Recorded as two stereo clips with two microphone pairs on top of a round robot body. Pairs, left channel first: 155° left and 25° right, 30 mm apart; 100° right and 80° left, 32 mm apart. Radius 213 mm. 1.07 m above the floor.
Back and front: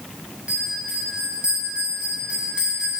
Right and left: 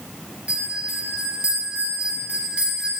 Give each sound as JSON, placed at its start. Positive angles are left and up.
{"t": 0.5, "sound": "a bell", "azimuth_deg": 30, "distance_m": 0.8}